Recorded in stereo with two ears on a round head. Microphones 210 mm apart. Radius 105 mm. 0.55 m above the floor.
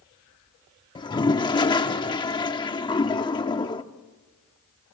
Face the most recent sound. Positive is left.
turn(degrees=20)  # may be behind; listen again after turning